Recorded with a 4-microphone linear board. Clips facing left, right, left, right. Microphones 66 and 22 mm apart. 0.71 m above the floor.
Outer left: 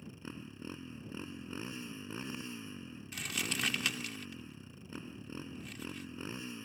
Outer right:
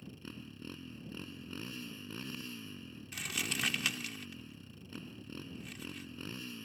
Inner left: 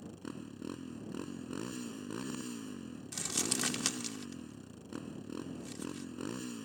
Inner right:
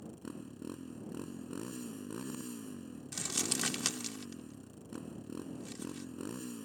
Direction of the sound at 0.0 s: 20° left (ahead or behind).